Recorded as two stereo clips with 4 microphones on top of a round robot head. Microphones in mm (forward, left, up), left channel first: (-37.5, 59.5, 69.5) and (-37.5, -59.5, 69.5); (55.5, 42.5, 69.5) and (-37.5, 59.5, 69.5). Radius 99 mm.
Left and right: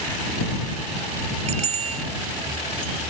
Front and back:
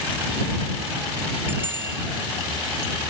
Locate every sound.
1.5 s a bicycle bell: 115° right